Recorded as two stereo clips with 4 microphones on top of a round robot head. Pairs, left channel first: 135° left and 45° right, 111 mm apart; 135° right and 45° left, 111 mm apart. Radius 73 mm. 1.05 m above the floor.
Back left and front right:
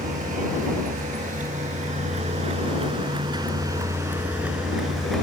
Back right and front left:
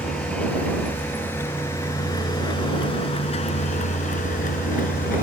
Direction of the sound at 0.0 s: 50° right.